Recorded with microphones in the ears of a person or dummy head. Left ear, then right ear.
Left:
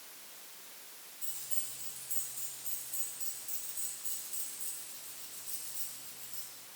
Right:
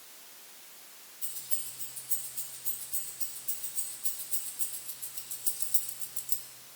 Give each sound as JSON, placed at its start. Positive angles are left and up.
{"t": 1.2, "sound": "keys jangling", "side_deg": 5, "distance_m": 3.0}